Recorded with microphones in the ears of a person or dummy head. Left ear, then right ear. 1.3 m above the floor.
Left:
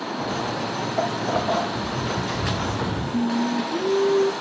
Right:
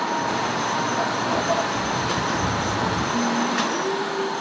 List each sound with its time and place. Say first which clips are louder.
0.2 s footsteps: right 3 dB; 40° left (ahead or behind), 1.9 m; by 3.0 s 5° right (ahead or behind), 2.0 m
3.1 s singing: right 3 dB; 10° left (ahead or behind), 1.1 m